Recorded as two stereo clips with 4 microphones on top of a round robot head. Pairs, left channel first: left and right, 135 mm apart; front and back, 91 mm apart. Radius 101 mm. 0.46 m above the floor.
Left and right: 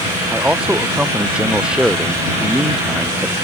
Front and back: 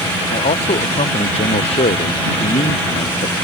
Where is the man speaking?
10° right; by 3.4 s 5° right.